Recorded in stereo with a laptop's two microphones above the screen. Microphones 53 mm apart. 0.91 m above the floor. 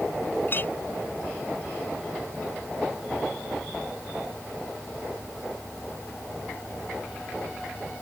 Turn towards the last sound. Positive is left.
turn(degrees=40)  # may be behind; listen again after turning